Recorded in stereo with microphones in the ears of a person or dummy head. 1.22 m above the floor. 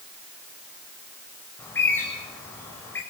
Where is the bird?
15° left (ahead or behind), 7 m.